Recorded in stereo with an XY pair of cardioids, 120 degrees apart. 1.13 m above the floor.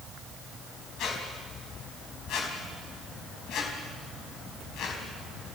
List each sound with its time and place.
1.0 s a squeak: 70° left, 4.5 m